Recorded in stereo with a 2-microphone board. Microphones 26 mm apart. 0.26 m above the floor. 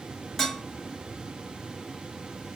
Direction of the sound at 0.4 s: 10° left (ahead or behind).